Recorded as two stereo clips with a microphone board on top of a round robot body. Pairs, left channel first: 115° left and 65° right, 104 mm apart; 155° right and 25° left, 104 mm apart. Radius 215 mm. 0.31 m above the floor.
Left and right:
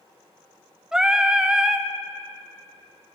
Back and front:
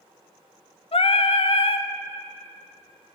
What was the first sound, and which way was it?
Singing, 150° right.